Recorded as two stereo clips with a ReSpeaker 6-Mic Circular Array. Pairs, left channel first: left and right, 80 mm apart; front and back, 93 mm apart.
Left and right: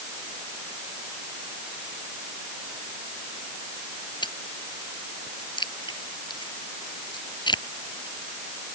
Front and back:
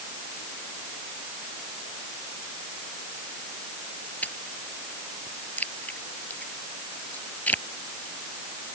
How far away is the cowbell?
No cowbell in this recording.